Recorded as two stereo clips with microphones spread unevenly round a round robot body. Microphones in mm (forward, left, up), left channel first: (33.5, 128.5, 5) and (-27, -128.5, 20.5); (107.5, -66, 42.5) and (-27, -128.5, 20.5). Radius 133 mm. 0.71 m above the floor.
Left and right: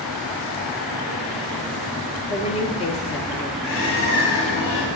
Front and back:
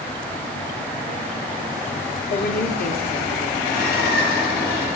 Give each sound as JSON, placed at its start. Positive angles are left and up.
{"t": 2.3, "sound": "a woman speaking", "azimuth_deg": 15, "distance_m": 1.3}
{"t": 3.6, "sound": "a bird", "azimuth_deg": 35, "distance_m": 3.5}